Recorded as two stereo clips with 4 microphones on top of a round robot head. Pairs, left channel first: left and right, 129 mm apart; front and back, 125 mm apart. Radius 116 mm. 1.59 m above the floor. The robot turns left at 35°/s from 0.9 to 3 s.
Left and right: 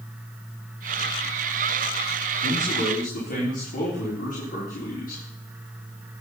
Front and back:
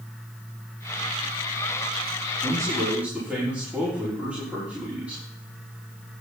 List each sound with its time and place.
2.4 s a man speaking: 120° left, 5.5 m; by 5.2 s 100° left, 5.5 m